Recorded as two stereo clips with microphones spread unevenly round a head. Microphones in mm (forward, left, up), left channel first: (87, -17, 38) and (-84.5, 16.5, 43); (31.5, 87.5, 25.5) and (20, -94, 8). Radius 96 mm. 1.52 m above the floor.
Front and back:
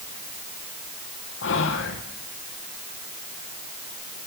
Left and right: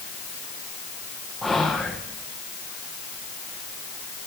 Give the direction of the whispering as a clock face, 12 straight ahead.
12 o'clock.